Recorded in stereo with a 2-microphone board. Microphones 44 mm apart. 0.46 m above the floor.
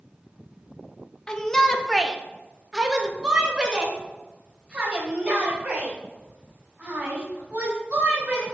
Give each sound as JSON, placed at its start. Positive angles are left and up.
{"t": 1.3, "sound": "a shout", "side_deg": 20, "distance_m": 0.8}